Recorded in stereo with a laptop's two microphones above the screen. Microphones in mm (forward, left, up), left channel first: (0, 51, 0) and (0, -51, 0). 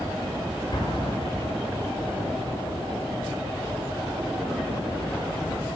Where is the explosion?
45° left (ahead or behind), 1.0 m.